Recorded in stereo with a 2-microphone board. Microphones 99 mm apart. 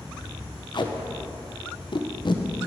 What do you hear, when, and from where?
0.7 s tape being pulled: 50° left (ahead or behind), 0.9 m